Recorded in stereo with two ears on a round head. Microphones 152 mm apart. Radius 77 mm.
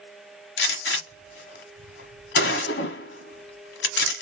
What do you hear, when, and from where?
0.6 s a gunshot: 70° left (ahead or behind), 1.2 m